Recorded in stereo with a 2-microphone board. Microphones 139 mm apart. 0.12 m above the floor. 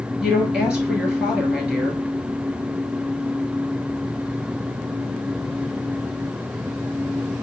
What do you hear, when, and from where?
0.2 s a woman speaking: 5° right (ahead or behind), 2.0 m